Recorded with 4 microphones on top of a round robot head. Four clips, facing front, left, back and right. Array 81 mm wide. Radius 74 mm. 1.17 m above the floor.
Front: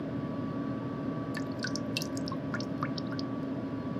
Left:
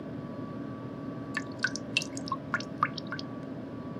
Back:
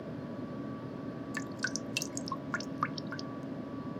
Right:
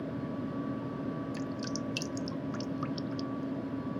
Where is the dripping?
105° left.